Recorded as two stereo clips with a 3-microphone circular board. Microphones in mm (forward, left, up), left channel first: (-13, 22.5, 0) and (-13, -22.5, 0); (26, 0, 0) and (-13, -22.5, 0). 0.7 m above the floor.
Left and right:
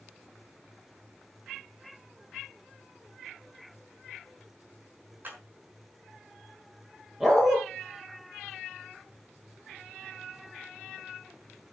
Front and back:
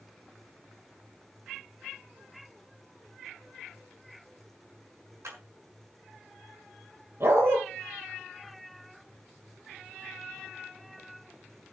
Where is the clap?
140° right, 6 m.